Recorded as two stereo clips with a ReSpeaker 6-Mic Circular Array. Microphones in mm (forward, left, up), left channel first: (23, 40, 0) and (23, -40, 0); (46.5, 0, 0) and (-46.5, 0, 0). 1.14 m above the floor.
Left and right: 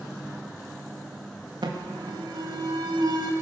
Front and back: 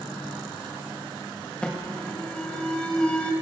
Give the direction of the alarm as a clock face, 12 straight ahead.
3 o'clock.